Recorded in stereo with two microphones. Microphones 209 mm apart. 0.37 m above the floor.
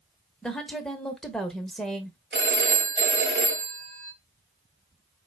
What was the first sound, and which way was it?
A woman speaking, 5° left (ahead or behind).